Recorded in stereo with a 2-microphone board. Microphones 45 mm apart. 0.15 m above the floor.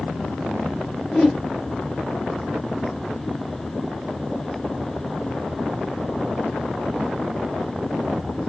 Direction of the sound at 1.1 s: Centre (ahead or behind).